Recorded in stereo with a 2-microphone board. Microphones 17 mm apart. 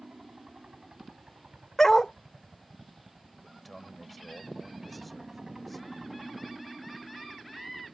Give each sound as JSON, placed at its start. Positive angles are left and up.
{"t": 0.0, "sound": "a helicopter", "side_deg": -70}
{"t": 1.8, "sound": "a dog barking", "side_deg": 30}
{"t": 3.4, "sound": "a man speaking", "side_deg": 5}